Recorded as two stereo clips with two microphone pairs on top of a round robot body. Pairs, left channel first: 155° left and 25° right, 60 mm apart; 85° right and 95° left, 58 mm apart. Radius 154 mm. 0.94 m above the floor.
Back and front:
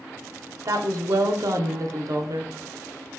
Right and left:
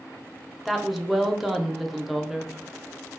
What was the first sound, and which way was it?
A woman speaking, 5° left.